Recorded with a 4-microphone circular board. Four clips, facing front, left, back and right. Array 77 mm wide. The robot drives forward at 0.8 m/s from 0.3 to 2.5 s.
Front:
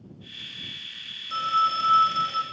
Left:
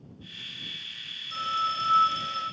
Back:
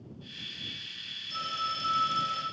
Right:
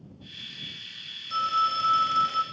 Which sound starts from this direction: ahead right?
A phone ringing, at 1.3 s.